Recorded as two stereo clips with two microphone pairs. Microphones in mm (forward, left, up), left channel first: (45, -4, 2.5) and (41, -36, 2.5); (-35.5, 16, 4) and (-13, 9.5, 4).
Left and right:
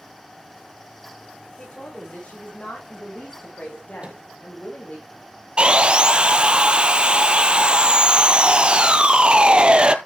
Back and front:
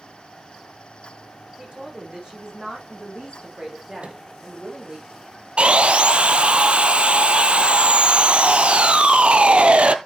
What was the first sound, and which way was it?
A woman speaking, 30° left.